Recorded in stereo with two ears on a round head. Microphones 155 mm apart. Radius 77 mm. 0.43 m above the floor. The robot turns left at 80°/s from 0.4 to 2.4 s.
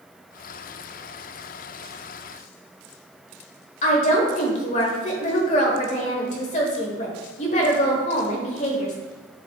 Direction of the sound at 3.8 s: 45° left (ahead or behind).